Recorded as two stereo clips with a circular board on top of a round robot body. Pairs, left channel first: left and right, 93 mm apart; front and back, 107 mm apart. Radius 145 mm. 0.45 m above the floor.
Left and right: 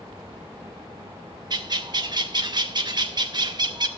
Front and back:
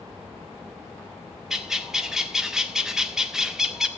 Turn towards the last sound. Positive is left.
turn(degrees=-95)